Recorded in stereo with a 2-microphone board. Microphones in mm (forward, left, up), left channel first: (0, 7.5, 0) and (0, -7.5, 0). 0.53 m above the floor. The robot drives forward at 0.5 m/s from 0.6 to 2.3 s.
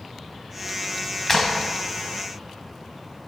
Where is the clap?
25° left (ahead or behind), 2.5 m.